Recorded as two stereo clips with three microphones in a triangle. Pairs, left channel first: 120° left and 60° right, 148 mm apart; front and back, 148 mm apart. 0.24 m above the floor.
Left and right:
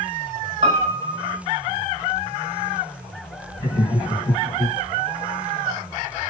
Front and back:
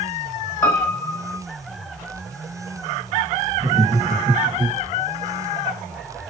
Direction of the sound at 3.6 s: 170° left.